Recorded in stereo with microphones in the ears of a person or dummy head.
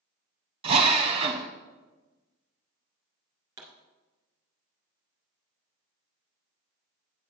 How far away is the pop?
About 1.9 m.